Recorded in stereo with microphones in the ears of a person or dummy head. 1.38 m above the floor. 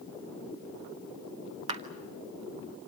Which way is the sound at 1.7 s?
35° right (ahead or behind).